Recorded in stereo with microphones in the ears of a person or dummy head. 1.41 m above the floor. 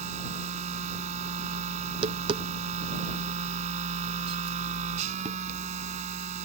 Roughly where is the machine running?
Right.